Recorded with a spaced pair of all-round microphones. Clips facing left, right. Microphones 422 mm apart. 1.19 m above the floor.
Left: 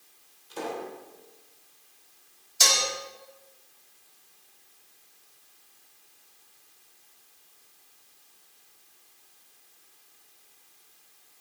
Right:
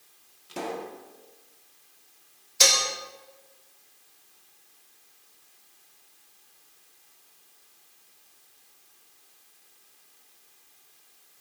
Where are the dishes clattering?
75° right (ahead or behind), 2.5 m.